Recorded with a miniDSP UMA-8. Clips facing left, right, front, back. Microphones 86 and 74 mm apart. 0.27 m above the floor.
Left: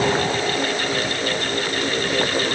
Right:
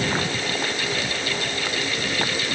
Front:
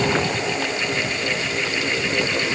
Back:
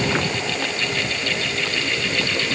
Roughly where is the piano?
No piano in this recording.